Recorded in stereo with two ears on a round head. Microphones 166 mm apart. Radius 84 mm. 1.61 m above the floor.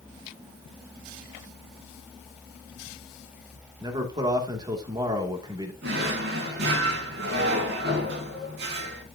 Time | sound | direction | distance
3.8 | a man speaking | 25° right (ahead or behind) | 2.5 m
5.8 | a drawer | 65° right (ahead or behind) | 3.5 m